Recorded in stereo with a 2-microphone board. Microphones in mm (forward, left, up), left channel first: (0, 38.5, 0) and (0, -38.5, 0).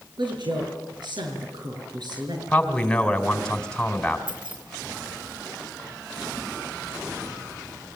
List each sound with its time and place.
0.2 s a woman speaking: 80° right, 7 m; by 2.4 s 65° right (ahead or behind), 6.5 m
2.5 s a man speaking: 10° left (ahead or behind), 3 m
4.3 s keys jangling: 85° right, 6.5 m